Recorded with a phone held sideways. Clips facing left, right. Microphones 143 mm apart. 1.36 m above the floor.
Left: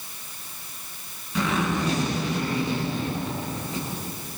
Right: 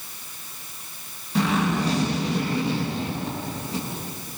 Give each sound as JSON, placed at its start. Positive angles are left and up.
{"t": 1.4, "sound": "a zipper", "side_deg": -30, "distance_m": 9.5}